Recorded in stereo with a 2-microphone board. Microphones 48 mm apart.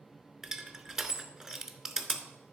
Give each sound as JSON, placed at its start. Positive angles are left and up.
{"t": 0.4, "sound": "crushing", "side_deg": -15, "distance_m": 0.7}